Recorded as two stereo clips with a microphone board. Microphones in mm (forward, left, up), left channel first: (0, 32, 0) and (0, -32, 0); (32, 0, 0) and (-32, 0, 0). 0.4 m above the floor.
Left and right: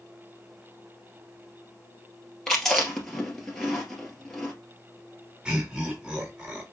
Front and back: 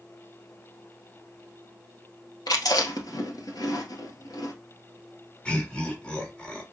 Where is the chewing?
5° left, 1.7 m.